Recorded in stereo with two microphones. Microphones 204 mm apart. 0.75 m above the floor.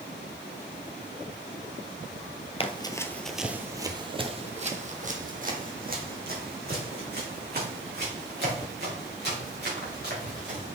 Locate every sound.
2.6 s running footsteps: 30° left (ahead or behind), 0.8 m; by 10.8 s 55° right (ahead or behind), 5 m